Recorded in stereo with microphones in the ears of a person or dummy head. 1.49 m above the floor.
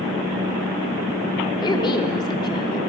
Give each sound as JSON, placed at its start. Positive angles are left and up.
{"t": 1.6, "sound": "a woman speaking", "side_deg": 15, "distance_m": 5.0}